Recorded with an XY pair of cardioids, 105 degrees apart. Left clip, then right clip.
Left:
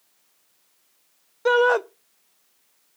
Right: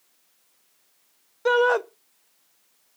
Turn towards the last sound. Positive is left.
turn(degrees=10)